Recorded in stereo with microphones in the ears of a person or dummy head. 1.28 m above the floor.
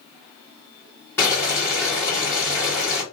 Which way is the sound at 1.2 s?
10° left (ahead or behind).